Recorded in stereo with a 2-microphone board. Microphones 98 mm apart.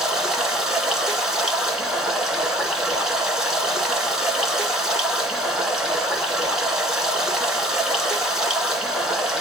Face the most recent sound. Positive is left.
turn(degrees=-5)  # may be behind; listen again after turning